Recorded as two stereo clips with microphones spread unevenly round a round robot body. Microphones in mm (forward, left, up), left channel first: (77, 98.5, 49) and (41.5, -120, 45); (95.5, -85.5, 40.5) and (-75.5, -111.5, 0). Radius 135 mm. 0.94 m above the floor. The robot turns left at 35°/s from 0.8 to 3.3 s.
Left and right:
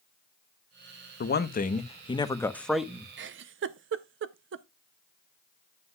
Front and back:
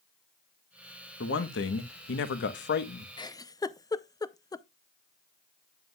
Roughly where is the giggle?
Ahead right.